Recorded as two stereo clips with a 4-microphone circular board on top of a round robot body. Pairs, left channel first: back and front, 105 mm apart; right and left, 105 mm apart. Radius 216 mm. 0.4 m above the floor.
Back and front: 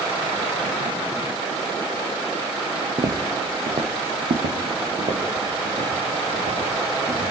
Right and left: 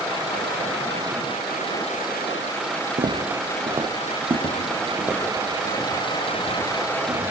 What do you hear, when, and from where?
3.0 s footsteps: 50° left, 0.7 m; by 7.2 s 20° left, 5 m